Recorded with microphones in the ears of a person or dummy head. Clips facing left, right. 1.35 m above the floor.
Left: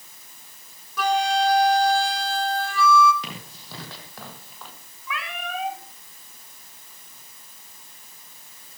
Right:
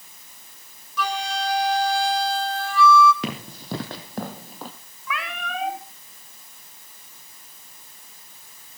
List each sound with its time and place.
1.0 s a flute: 45° left (ahead or behind), 2.5 m
3.2 s running footsteps: 50° right (ahead or behind), 4 m; by 4.7 s 35° right (ahead or behind), 2.5 m
5.1 s a cat meowing: 35° right (ahead or behind), 1.6 m